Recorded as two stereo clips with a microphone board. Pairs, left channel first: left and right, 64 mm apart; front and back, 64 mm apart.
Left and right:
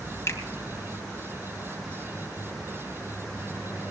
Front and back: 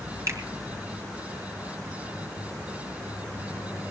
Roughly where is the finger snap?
Behind left.